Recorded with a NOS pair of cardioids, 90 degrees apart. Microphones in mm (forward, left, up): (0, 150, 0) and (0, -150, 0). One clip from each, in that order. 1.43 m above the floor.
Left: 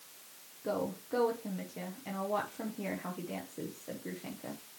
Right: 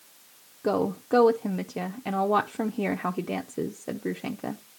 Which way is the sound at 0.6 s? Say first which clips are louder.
Right 9 dB; 60° right.